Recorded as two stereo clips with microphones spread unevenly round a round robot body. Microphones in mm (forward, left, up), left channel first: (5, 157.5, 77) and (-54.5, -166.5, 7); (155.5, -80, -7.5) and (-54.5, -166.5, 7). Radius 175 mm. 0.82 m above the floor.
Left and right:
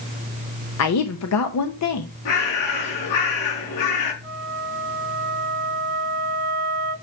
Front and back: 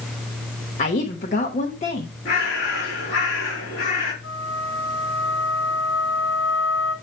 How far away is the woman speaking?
About 0.8 m.